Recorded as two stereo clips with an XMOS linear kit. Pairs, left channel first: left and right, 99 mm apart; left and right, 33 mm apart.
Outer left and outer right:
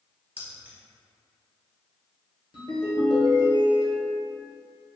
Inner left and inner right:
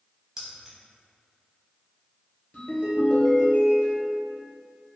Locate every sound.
0.4 s keys jangling: 15° right (ahead or behind), 0.7 m
2.5 s a ringtone: 50° left (ahead or behind), 1.4 m